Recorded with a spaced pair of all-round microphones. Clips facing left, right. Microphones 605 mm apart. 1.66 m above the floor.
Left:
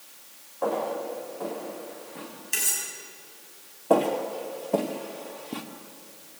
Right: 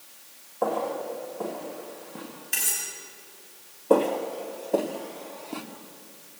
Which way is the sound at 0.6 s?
75° right (ahead or behind).